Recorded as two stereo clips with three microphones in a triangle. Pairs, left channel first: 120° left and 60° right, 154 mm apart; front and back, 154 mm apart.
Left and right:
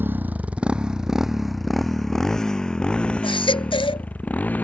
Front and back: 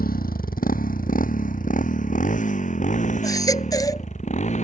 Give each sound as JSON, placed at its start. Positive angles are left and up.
{"t": 0.0, "sound": "a motorcycle", "azimuth_deg": 15}
{"t": 3.2, "sound": "a baby crying", "azimuth_deg": 65}